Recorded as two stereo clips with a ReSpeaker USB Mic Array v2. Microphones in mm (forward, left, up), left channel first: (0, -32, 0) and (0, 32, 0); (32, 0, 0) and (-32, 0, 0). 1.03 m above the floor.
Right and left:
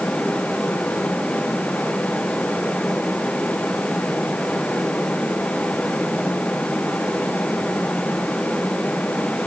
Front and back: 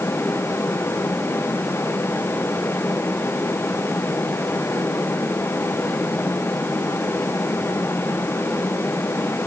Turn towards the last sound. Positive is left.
No sound to turn to.